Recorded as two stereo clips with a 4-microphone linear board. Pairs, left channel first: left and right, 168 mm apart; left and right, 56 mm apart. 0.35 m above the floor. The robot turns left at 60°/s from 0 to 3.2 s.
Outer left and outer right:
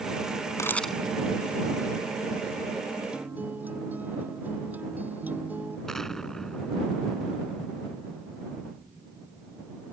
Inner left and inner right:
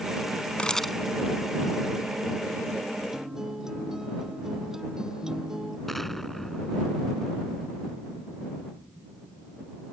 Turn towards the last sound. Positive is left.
turn(degrees=5)  # may be behind; listen again after turning